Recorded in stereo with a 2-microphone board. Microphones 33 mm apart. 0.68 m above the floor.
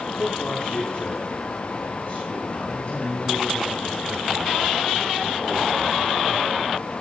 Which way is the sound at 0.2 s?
55° left (ahead or behind).